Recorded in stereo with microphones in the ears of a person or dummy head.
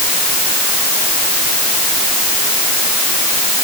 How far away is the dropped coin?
I don't hear a dropped coin.